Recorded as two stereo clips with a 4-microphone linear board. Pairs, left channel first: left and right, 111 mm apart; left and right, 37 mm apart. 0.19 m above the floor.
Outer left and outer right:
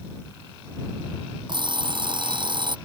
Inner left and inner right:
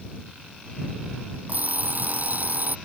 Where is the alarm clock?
45° right (ahead or behind).